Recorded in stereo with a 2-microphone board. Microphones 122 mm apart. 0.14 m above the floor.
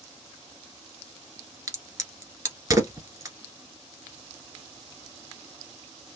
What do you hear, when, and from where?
1.7 s a crack: 30° right (ahead or behind), 1.1 m